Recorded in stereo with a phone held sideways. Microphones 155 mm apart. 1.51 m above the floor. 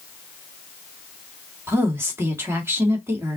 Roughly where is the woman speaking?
Centre.